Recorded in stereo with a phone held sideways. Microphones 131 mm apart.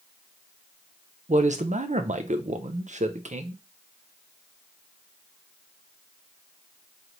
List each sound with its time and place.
1.3 s a man speaking: 65° right (ahead or behind), 0.6 m